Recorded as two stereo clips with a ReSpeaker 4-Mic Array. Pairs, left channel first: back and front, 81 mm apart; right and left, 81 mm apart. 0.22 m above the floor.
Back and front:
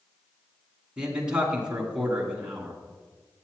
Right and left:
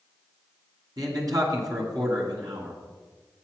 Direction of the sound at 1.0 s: 75° left.